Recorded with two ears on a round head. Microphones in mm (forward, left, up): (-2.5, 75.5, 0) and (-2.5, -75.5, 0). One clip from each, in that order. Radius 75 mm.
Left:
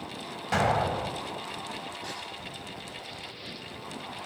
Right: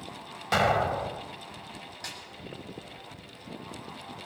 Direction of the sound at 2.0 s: 90° right.